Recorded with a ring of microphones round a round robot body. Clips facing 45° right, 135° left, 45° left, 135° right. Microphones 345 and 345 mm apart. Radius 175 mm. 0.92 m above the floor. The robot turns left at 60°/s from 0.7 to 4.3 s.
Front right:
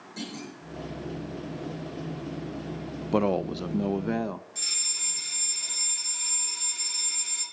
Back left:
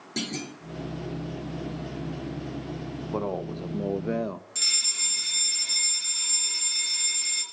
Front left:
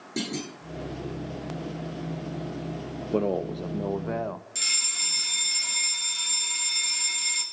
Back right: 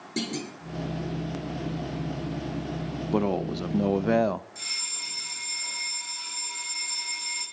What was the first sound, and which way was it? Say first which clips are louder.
A clunk: back left 4 dB, even; 140° left.